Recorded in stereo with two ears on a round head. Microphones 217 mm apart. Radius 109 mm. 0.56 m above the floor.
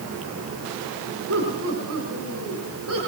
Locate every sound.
1.3 s laughter: 45° right (ahead or behind), 6.5 m; by 3.0 s 60° right (ahead or behind), 7 m